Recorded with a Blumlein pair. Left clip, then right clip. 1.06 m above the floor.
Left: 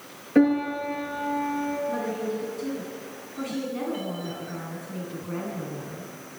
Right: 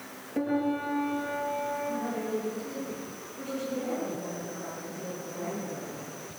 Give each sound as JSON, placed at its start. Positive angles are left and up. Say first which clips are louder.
{"t": 0.3, "sound": "a piano", "louder": "left 7 dB", "azimuth_deg": 40, "distance_m": 8.0}
{"t": 1.9, "sound": "a woman speaking", "louder": "left 3 dB", "azimuth_deg": 55, "distance_m": 10.0}